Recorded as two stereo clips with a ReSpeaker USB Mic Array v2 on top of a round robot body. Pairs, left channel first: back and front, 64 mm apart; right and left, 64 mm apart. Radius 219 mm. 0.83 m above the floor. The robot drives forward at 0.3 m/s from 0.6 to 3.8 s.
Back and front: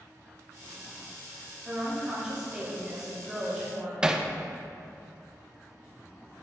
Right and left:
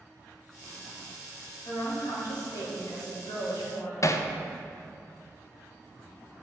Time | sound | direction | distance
1.6 | a woman speaking | 75° right | 2 m
4.0 | hammering | 75° right | 0.6 m